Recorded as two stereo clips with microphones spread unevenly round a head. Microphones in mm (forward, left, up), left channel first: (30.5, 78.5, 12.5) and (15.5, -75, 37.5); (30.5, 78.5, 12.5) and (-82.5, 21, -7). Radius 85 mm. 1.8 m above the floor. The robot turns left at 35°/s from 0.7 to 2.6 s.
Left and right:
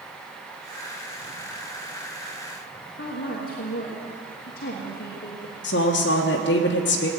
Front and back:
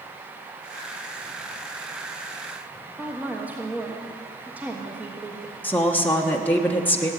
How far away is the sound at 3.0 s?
About 1.4 m.